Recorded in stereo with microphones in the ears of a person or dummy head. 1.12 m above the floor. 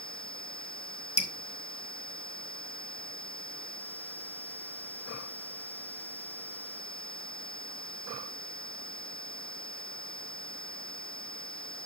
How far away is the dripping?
About 0.7 m.